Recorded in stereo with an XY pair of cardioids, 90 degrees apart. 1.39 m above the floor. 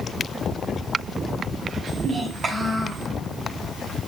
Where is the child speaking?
50° right, 6 m.